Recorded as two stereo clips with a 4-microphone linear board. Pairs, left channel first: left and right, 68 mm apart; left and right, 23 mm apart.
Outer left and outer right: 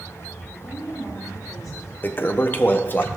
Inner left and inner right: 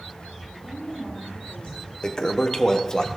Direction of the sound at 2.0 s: 35° left (ahead or behind).